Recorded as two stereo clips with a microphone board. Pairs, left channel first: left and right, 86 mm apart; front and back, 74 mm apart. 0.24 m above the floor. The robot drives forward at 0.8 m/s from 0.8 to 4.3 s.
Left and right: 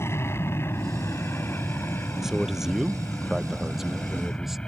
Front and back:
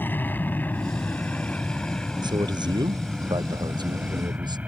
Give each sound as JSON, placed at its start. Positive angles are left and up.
{"t": 0.0, "sound": "an aircraft", "azimuth_deg": 50}
{"t": 2.2, "sound": "a man speaking", "azimuth_deg": -175}